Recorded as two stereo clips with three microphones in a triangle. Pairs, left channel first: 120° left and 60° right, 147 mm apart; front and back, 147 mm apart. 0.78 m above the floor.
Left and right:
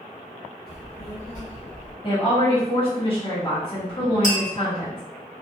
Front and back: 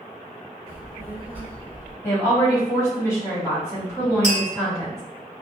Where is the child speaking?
100° left, 1.1 m; by 1.9 s 60° left, 1.0 m.